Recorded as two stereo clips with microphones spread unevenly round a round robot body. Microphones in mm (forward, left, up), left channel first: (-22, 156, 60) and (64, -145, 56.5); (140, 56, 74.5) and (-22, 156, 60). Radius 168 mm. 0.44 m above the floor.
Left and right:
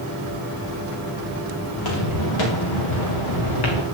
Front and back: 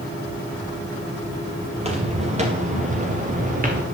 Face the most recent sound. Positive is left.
turn(degrees=105)